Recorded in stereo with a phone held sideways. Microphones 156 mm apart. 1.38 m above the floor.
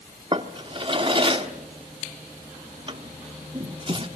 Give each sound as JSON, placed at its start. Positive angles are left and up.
{"t": 0.3, "sound": "a drawer", "side_deg": -35, "distance_m": 1.1}